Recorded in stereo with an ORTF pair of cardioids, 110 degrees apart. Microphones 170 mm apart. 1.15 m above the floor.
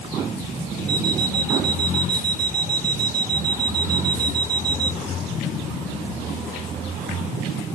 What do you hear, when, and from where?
0.9 s an alarm clock: 65° right, 1.1 m